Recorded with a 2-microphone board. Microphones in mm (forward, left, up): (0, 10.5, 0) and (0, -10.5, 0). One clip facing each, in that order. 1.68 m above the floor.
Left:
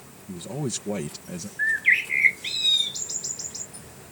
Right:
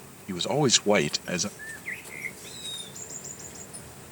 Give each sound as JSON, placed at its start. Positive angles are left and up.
{"t": 0.3, "sound": "a man speaking", "side_deg": -50}
{"t": 1.6, "sound": "a bird", "side_deg": 50}